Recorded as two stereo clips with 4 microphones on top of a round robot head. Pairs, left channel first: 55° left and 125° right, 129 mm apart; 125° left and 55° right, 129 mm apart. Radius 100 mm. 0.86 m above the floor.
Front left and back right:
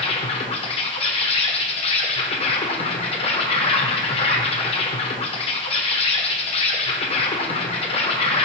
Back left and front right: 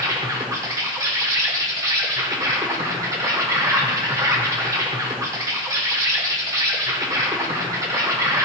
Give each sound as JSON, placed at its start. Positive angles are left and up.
{"t": 0.0, "sound": "an insect", "azimuth_deg": 10, "distance_m": 1.2}